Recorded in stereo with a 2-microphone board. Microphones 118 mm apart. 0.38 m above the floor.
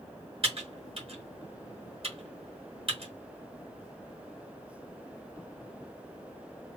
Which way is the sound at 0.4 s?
55° right (ahead or behind).